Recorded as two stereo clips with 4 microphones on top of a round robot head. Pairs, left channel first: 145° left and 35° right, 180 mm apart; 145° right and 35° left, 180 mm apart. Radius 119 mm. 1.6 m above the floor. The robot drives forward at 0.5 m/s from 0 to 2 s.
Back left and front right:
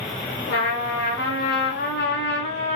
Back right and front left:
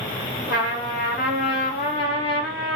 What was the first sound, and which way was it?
A trumpet, 165° left.